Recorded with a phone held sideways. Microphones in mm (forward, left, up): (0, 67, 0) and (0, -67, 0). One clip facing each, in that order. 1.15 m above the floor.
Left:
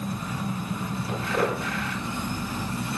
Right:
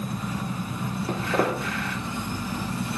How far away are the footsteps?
About 4 m.